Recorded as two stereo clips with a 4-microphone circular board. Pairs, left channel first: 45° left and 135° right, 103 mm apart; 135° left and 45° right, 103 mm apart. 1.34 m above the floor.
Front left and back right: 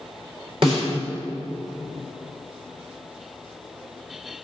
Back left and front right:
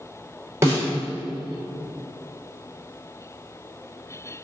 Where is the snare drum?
105° right, 4.5 m.